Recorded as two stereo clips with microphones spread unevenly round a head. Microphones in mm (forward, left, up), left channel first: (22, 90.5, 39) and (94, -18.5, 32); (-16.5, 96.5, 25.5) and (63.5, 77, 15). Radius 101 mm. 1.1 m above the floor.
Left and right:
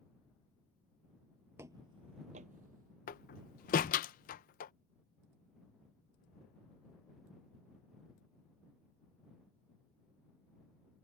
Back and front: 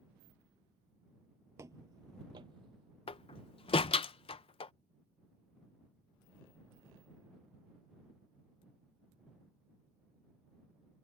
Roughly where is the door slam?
Behind left.